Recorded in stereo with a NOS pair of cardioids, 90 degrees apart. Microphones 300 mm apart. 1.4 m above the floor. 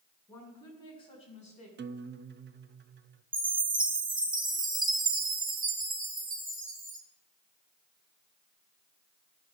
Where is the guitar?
35° right, 0.6 m.